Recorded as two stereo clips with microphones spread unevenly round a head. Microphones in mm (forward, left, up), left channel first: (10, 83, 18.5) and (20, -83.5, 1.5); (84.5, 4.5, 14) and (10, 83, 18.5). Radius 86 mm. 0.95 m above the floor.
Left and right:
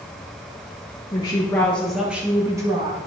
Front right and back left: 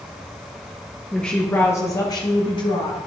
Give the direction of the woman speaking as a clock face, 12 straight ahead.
11 o'clock.